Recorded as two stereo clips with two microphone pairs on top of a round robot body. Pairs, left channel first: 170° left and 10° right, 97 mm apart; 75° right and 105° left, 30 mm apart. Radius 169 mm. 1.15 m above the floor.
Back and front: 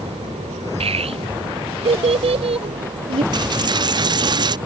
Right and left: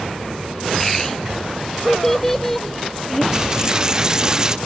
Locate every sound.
0.8 s a child speaking: 5° left
3.3 s a dropped coin: 35° left